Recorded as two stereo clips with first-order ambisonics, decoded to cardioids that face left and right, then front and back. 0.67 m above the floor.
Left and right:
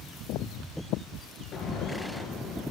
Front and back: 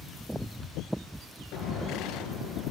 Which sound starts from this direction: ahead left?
An explosion, at 1.5 s.